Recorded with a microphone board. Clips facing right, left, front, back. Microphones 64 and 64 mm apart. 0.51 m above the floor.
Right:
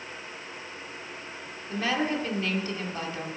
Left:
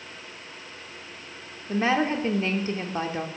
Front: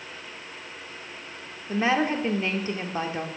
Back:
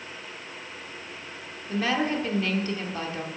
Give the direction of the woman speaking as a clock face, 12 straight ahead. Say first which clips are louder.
Left 4 dB, front 2 dB; 10 o'clock.